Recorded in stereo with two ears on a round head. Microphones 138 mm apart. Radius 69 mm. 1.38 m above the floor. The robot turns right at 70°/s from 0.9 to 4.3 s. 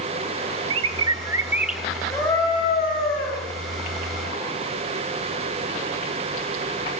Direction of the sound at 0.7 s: 65° right.